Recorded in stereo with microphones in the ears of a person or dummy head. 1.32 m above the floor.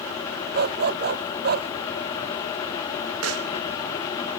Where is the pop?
80° right.